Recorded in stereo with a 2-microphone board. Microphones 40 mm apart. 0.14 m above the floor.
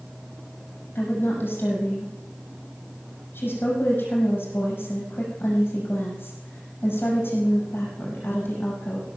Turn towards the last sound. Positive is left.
turn(degrees=65)  # may be behind; listen again after turning